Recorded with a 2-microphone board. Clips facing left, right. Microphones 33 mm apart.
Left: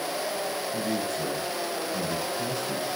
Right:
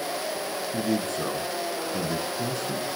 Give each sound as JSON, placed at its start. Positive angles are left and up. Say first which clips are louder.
{"t": 0.7, "sound": "a man speaking", "louder": "right 4 dB", "side_deg": -80, "distance_m": 7.5}